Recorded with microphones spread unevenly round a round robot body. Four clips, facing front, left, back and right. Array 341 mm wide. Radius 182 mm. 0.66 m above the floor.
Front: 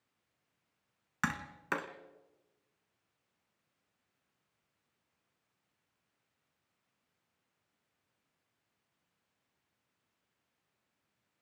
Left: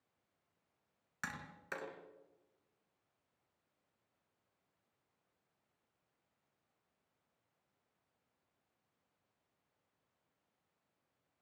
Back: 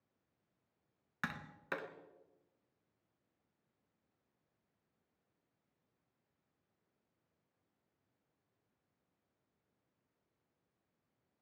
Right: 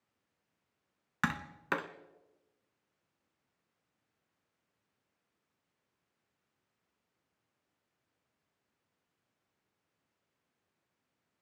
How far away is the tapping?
About 1.7 m.